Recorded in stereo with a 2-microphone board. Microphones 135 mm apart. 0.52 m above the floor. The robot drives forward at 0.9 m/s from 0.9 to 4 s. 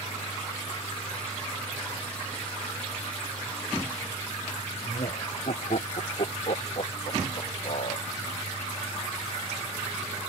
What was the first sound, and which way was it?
Laughter, 60° left (ahead or behind).